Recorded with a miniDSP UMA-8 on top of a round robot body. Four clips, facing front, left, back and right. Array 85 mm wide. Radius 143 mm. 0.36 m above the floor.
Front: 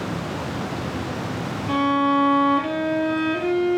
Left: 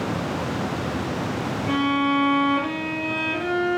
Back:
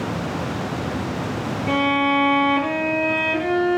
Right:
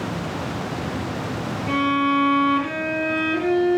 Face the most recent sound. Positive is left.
turn(degrees=-175)